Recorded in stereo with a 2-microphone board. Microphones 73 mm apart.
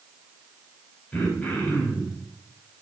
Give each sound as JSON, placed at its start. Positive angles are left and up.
{"t": 1.1, "sound": "throat clearing", "side_deg": 15, "distance_m": 4.0}